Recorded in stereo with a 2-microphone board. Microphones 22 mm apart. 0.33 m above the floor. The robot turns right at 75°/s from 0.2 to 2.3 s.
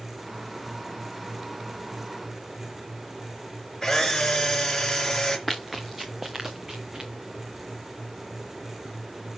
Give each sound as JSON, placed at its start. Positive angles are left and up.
{"t": 3.8, "sound": "a camera shutter", "side_deg": 20, "distance_m": 3.5}
{"t": 5.5, "sound": "running footsteps", "side_deg": 0, "distance_m": 1.6}